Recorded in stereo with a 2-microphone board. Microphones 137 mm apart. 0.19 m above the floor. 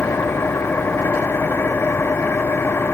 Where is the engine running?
15° left (ahead or behind).